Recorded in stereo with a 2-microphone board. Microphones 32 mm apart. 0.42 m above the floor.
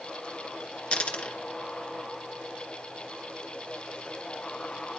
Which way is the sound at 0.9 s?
35° left (ahead or behind).